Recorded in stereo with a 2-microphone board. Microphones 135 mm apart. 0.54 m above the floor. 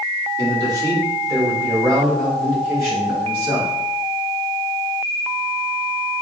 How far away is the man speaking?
About 1.4 m.